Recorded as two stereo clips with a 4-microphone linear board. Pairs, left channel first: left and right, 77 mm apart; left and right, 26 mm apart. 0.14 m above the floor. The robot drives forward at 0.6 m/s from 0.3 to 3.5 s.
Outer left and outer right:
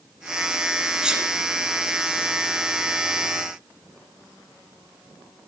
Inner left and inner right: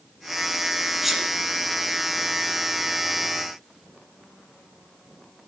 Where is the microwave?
I don't hear a microwave.